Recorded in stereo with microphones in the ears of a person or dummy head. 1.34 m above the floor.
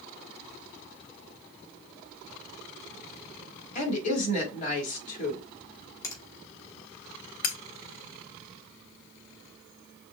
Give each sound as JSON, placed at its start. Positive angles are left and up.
{"t": 3.8, "sound": "a woman speaking", "side_deg": 40, "distance_m": 3.5}
{"t": 6.0, "sound": "a finger snap", "side_deg": 15, "distance_m": 2.5}
{"t": 7.4, "sound": "cutlery clinking", "side_deg": 45, "distance_m": 0.5}